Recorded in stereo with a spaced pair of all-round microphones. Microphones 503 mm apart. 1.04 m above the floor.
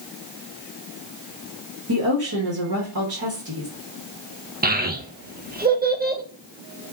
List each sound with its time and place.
1.9 s a woman speaking: 45° right (ahead or behind), 1.1 m
4.6 s a child speaking: 20° right (ahead or behind), 0.6 m